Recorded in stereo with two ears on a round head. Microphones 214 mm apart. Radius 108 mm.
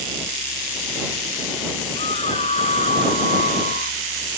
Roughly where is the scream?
Left.